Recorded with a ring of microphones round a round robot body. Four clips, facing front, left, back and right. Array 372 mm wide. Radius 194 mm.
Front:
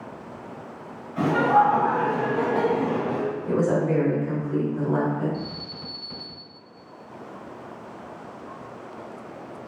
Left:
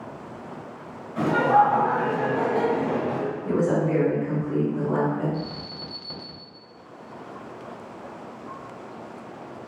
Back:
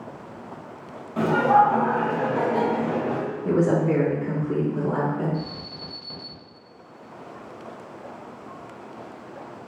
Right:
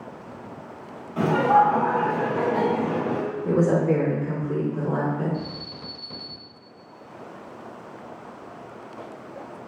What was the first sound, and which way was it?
Laughter, 155° right.